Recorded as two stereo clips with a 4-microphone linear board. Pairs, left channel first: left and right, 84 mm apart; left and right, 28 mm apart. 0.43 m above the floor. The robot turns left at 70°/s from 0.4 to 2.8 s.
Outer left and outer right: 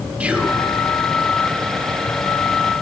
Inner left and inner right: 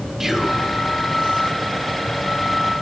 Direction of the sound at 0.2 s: 15° right (ahead or behind).